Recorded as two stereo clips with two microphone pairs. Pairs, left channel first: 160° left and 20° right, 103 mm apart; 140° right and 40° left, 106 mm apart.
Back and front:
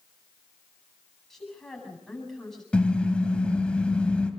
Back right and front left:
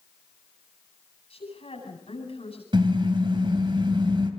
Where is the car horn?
80° left, 2.5 m.